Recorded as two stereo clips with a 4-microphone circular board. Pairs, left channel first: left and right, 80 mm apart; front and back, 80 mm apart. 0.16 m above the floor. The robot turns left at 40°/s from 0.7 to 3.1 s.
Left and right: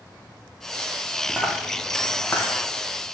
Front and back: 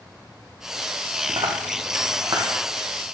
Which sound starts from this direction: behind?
A dropped coin, at 1.3 s.